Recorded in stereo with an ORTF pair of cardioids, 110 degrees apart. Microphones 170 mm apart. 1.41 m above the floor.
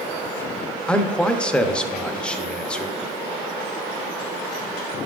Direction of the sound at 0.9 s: 5° left.